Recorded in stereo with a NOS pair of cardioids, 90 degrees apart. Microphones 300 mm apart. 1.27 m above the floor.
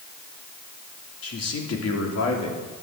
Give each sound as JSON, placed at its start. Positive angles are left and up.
{"t": 1.2, "sound": "a man speaking", "azimuth_deg": 50, "distance_m": 4.0}